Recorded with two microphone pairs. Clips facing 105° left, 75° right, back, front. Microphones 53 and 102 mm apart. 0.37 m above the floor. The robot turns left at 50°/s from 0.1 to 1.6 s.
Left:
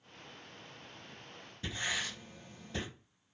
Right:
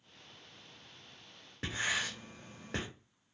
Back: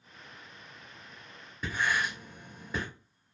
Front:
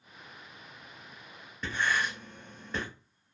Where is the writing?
95° right, 1.2 m.